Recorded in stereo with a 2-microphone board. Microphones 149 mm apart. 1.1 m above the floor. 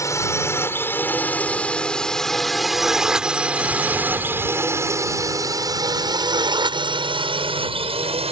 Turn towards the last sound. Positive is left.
turn(degrees=-40)  # may be behind; listen again after turning